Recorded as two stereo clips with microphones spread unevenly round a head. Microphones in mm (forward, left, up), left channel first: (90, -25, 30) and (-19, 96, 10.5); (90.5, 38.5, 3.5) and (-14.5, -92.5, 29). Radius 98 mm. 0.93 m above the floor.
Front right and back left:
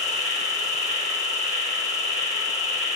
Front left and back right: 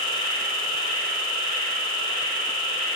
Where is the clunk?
I don't hear a clunk.